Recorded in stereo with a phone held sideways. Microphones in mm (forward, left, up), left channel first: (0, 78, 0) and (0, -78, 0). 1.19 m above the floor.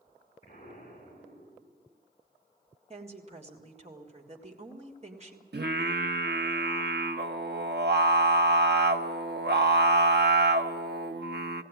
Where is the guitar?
No guitar in this recording.